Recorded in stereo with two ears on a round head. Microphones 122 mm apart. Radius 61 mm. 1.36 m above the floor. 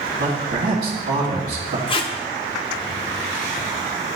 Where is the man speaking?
65° right (ahead or behind), 1.6 m.